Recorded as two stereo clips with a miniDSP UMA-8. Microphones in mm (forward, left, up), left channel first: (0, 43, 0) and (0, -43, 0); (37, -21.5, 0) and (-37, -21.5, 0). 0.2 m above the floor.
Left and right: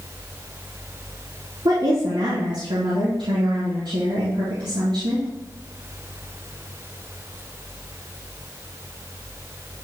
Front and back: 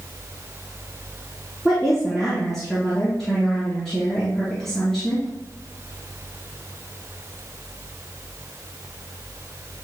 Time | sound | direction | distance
1.6 | a woman speaking | 85° right | 3 m